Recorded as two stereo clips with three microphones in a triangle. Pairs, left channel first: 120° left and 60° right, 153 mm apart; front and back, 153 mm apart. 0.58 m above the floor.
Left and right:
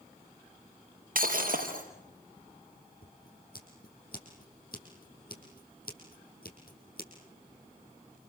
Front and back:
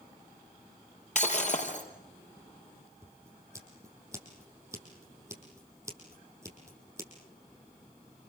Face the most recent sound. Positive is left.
turn(degrees=110)